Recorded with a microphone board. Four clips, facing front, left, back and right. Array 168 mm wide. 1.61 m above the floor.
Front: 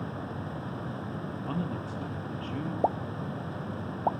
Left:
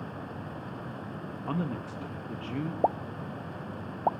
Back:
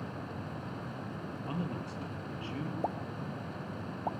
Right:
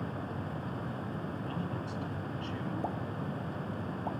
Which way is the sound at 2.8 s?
55° left.